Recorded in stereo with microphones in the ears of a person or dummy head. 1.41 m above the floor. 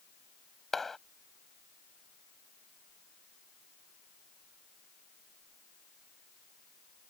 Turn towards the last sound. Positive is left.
turn(degrees=0)  # may be behind; listen again after turning